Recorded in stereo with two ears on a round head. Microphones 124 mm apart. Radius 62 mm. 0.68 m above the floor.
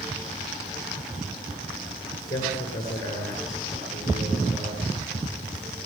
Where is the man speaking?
25° left (ahead or behind), 9 m.